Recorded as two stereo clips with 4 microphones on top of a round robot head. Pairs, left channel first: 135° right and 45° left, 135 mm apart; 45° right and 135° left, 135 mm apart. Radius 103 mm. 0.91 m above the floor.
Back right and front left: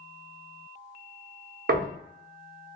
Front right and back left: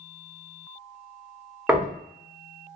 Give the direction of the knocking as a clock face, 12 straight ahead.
10 o'clock.